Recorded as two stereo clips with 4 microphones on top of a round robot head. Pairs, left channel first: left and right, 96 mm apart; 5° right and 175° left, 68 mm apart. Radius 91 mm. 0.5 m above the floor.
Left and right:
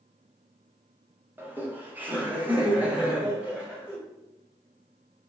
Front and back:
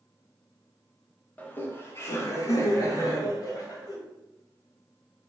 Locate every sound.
1.4 s laughter: 45° right, 1.0 m; by 4.0 s 10° right, 2 m